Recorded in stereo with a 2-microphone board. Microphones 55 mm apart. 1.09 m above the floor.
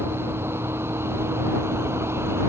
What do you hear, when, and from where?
0.0 s a vehicle: 45° right (ahead or behind)